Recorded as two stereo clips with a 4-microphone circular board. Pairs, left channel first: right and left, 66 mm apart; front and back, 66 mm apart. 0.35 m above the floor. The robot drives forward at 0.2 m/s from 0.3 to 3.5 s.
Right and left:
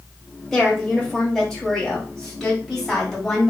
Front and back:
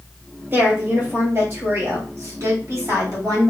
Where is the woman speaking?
170° right, 1.2 m; by 3.5 s 175° right, 1.6 m.